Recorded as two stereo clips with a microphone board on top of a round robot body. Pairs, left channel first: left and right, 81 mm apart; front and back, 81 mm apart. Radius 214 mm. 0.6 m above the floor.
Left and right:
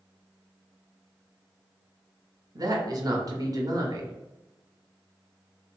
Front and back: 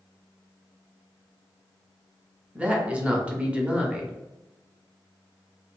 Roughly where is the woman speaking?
Right.